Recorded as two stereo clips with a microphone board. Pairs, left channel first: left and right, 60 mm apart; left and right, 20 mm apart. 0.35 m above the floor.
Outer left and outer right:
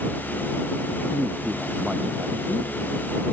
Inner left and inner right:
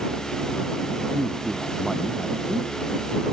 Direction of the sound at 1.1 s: 10° right (ahead or behind).